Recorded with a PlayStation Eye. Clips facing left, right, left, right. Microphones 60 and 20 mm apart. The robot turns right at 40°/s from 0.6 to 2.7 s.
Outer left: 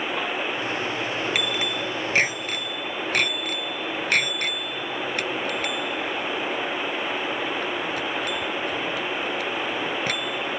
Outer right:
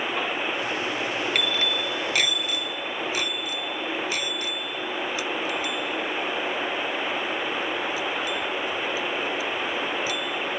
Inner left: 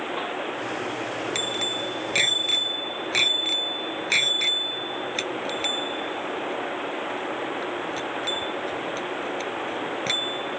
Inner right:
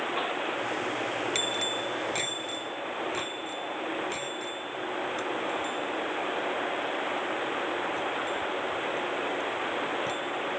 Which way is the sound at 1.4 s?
5° left (ahead or behind).